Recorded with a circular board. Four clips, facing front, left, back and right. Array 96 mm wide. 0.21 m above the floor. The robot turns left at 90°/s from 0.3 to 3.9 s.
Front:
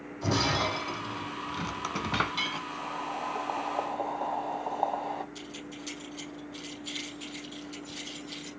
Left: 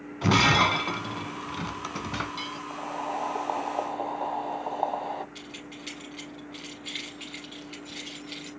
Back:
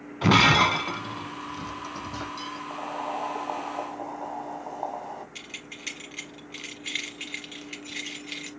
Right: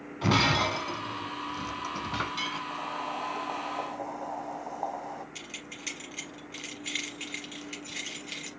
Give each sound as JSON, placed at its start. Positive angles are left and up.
{"t": 0.2, "sound": "breaking glass", "azimuth_deg": 175, "distance_m": 0.7}
{"t": 2.7, "sound": "boiling", "azimuth_deg": 165, "distance_m": 1.0}
{"t": 5.3, "sound": "keys jangling", "azimuth_deg": -160, "distance_m": 3.0}